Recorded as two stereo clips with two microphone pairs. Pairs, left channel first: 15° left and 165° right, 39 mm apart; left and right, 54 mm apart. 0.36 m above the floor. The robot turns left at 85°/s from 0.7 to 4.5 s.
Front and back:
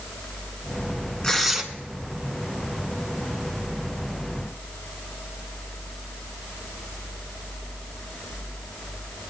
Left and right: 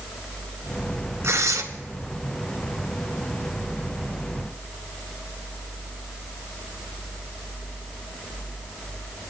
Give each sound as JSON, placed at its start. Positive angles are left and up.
{"t": 1.2, "sound": "tearing paper", "azimuth_deg": -55, "distance_m": 1.8}